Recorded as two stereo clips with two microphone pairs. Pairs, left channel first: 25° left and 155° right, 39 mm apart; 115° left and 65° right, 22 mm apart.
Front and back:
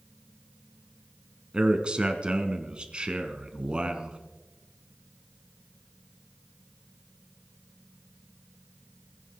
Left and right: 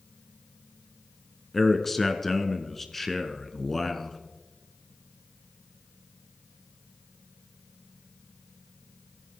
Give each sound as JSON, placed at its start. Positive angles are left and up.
{"t": 1.5, "sound": "a man speaking", "azimuth_deg": 180, "distance_m": 1.1}